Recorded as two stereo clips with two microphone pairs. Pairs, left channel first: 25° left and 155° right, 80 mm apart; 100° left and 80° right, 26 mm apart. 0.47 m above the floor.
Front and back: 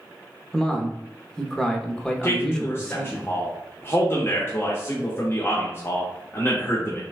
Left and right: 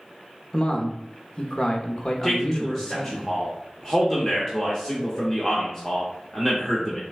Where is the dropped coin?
No dropped coin in this recording.